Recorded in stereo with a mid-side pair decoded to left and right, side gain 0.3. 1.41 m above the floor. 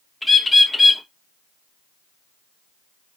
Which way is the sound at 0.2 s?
30° left.